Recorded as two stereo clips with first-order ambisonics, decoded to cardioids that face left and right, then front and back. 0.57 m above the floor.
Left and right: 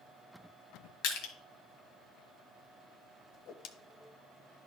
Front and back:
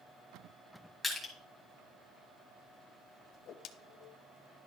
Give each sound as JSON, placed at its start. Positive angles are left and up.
{"t": 1.0, "sound": "crushing", "azimuth_deg": 90, "distance_m": 1.8}
{"t": 3.3, "sound": "a whoosh", "azimuth_deg": 45, "distance_m": 0.6}